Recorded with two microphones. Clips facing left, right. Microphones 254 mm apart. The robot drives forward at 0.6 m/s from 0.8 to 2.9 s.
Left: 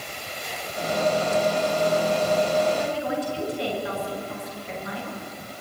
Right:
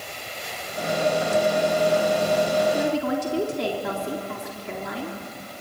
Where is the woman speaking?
75° right (ahead or behind), 3 m.